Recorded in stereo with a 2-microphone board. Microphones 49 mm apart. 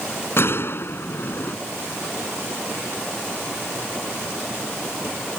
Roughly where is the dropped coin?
I don't hear a dropped coin.